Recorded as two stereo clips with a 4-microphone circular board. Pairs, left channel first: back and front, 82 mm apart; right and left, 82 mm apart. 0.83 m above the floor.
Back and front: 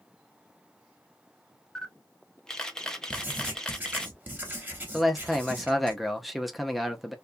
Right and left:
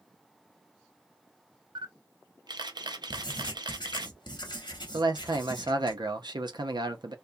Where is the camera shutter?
100° left, 0.5 m.